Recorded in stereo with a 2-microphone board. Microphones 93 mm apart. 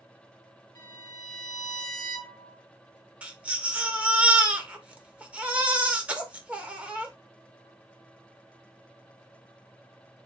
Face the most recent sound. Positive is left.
turn(degrees=-15)  # may be behind; listen again after turning